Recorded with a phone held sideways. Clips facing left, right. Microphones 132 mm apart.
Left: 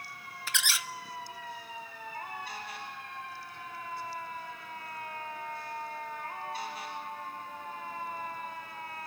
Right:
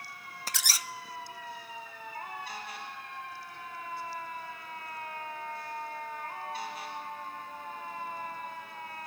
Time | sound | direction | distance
0.5 | a squeak | 40° right (ahead or behind) | 0.6 m